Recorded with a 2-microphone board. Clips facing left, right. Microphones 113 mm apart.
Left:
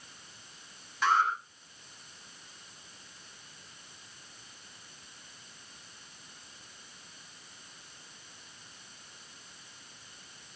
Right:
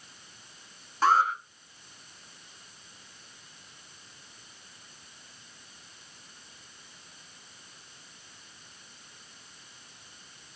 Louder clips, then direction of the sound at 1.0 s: Right 4 dB; 40° right (ahead or behind).